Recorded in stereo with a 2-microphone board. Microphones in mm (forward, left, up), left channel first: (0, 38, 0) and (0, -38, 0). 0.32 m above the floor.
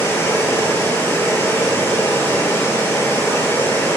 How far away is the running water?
About 1.0 m.